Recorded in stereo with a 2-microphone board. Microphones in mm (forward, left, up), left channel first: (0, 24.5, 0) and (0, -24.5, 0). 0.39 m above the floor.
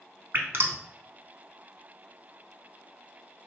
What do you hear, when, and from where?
0.3 s dripping: 60° right (ahead or behind), 0.5 m